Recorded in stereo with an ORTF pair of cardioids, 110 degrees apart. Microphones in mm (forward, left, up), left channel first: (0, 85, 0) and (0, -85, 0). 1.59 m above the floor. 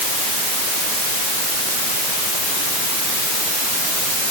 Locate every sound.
Only background noise.